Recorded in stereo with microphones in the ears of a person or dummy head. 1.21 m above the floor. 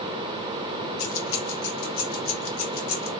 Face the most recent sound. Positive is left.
turn(degrees=75)  # may be behind; listen again after turning